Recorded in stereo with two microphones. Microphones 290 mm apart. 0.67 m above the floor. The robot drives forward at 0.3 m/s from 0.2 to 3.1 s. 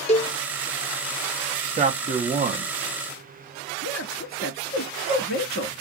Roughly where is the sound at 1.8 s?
Right.